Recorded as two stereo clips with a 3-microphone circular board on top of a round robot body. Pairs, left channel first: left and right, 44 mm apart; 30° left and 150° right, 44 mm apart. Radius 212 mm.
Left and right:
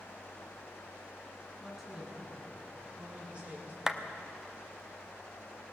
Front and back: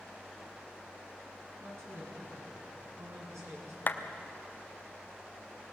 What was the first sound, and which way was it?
A woman speaking, 175° right.